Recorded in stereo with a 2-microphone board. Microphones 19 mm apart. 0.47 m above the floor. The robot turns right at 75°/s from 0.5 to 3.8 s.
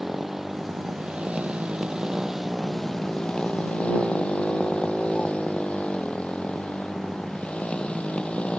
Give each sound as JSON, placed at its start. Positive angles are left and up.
{"t": 0.0, "sound": "a motorcycle", "azimuth_deg": -160}